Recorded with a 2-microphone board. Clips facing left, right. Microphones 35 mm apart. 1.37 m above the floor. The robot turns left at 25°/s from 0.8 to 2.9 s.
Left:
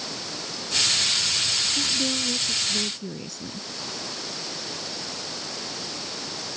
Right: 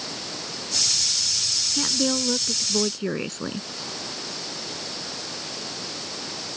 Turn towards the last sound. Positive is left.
turn(degrees=-55)  # may be behind; listen again after turning